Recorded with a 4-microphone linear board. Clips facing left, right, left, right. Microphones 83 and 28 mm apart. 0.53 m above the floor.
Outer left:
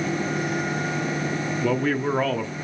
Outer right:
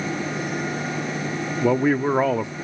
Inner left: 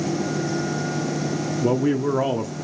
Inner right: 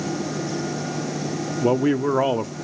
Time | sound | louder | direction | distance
1.6 | a man speaking | outer right 5 dB, inner right 2 dB | 15° right (ahead or behind) | 0.9 m